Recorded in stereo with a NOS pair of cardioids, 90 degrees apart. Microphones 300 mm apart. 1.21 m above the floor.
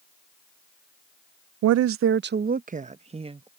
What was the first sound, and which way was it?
A woman speaking, 65° right.